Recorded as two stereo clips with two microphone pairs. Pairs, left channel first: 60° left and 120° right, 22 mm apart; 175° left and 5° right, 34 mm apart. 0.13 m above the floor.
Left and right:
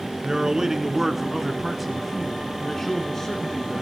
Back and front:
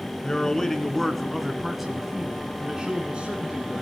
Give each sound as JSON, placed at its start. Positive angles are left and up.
{"t": 0.2, "sound": "a man speaking", "azimuth_deg": -135, "distance_m": 1.5}